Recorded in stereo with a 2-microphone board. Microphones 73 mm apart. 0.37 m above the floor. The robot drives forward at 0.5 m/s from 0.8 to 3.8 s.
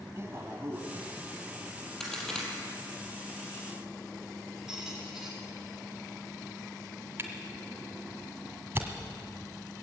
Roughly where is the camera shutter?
Right.